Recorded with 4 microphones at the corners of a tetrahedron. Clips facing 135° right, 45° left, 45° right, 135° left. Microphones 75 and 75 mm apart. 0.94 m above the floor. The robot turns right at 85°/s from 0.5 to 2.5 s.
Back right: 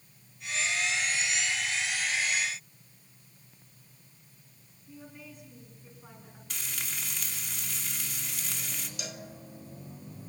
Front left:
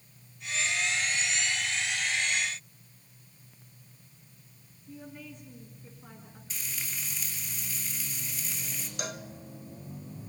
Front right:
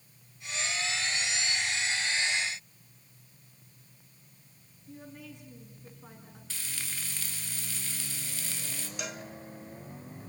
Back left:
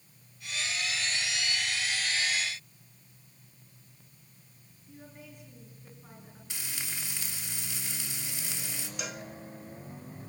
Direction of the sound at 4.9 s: 50° right.